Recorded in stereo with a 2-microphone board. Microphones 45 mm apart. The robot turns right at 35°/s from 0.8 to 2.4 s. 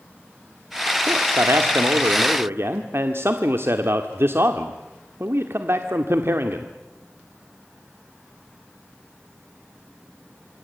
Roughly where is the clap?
No clap in this recording.